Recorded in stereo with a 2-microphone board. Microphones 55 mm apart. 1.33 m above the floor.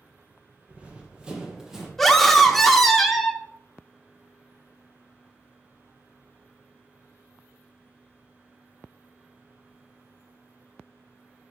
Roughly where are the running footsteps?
Right.